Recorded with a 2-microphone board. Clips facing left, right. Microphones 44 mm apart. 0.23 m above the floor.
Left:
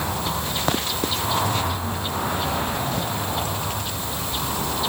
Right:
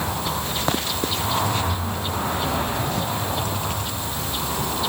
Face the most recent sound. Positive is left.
No sound to turn to.